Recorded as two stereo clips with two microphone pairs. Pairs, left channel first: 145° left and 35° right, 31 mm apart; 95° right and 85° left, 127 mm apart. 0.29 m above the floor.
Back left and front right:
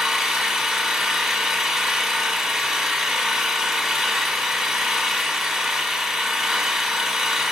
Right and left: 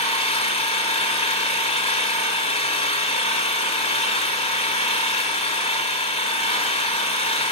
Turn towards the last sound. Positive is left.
turn(degrees=-115)